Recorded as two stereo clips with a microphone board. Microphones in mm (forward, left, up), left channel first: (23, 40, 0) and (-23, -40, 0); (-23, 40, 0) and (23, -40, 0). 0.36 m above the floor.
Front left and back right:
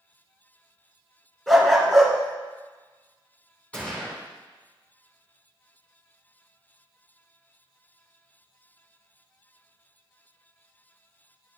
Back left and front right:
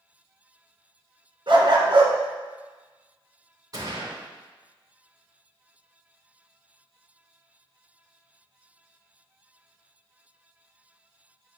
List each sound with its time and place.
1.5 s a dog barking: 30° right, 1.7 m
3.7 s a gunshot: 15° right, 3.5 m